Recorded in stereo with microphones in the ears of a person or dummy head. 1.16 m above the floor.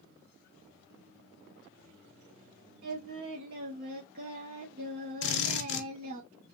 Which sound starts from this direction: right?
Singing, at 2.8 s.